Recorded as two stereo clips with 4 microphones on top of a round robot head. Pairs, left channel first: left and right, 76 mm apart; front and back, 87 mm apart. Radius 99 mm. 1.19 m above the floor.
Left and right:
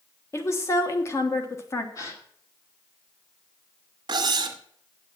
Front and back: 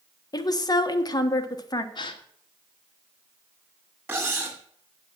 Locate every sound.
0.3 s a woman speaking: 40° left, 1.4 m
1.9 s a gasp: 35° left, 1.4 m
4.1 s cutlery clinking: 110° right, 1.4 m